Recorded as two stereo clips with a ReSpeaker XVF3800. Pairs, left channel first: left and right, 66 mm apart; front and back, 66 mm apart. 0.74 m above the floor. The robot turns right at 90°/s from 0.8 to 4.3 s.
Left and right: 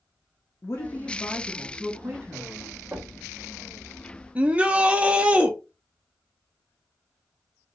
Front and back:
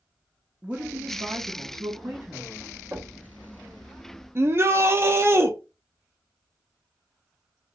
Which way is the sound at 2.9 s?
140° right.